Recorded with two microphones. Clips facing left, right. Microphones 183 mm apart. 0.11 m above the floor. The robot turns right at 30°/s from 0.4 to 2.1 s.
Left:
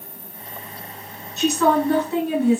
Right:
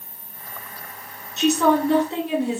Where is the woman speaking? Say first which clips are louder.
Even; 20° right (ahead or behind), 1.3 m.